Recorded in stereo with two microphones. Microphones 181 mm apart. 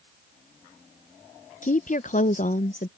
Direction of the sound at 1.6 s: 45° left (ahead or behind).